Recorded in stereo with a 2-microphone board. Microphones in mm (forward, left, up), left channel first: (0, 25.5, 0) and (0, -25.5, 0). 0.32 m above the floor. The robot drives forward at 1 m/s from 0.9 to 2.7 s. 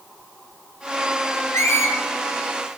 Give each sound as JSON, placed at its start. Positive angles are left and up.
{"t": 1.5, "sound": "a squeak", "side_deg": 65, "distance_m": 1.8}